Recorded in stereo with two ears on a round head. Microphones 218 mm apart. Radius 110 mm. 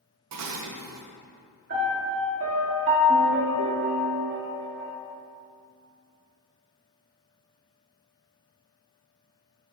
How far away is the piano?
About 1.7 m.